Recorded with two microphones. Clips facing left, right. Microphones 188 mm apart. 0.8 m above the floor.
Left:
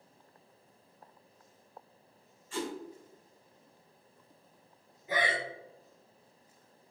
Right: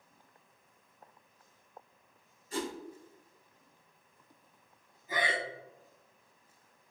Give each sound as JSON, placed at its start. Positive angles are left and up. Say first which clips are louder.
{"t": 2.5, "sound": "a whoosh", "louder": "even", "side_deg": -40, "distance_m": 1.8}
{"t": 5.1, "sound": "breathing", "louder": "left 2 dB", "side_deg": 70, "distance_m": 2.0}